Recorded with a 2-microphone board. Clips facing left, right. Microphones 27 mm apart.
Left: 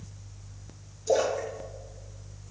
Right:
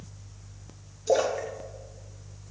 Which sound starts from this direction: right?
A splash, at 1.1 s.